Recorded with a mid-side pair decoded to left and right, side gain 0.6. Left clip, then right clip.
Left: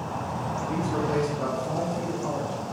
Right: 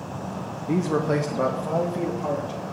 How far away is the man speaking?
About 0.7 m.